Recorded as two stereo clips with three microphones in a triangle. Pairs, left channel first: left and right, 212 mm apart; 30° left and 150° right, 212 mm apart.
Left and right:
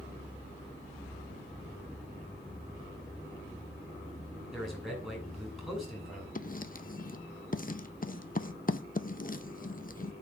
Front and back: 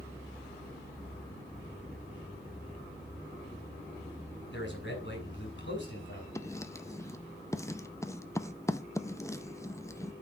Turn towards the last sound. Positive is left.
turn(degrees=95)